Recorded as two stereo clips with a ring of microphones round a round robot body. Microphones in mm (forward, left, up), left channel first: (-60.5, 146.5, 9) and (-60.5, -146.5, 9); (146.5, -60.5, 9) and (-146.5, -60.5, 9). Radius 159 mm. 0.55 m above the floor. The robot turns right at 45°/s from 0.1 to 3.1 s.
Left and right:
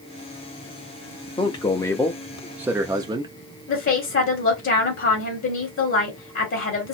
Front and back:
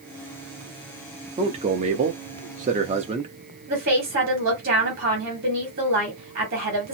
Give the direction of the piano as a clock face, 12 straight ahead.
No piano in this recording.